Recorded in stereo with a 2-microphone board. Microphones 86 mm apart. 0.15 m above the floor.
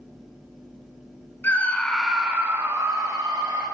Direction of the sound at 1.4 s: 25° left (ahead or behind).